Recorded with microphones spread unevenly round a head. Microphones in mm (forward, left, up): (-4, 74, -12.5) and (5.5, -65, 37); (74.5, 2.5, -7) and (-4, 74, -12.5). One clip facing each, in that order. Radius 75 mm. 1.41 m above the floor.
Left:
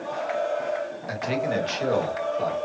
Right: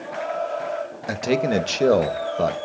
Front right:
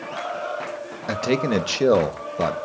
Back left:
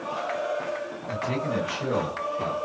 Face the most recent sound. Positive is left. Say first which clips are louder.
# right 6 dB, front right 7 dB
turn(degrees=-65)